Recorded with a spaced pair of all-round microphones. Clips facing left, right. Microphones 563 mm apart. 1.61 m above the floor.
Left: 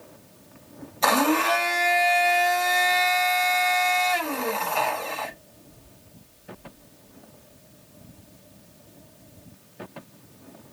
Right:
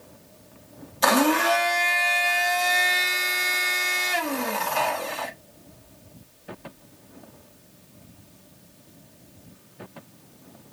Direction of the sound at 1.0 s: 40° right (ahead or behind).